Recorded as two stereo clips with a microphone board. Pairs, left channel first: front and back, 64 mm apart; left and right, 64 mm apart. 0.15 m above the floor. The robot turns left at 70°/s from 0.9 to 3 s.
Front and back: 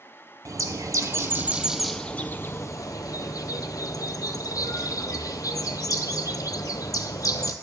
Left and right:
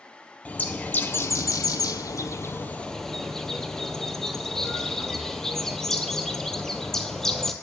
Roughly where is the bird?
Behind left.